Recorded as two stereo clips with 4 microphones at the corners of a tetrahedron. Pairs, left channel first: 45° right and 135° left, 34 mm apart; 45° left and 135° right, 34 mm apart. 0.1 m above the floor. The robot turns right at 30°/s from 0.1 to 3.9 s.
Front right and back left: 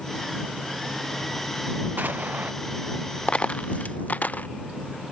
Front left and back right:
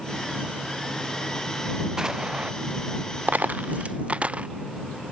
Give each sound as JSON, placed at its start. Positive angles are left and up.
{"t": 2.0, "sound": "an explosion", "azimuth_deg": 155}
{"t": 3.3, "sound": "a dropped coin", "azimuth_deg": -105}